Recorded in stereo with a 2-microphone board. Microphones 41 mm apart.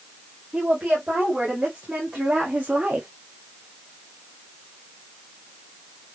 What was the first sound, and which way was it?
A woman speaking, 20° right (ahead or behind).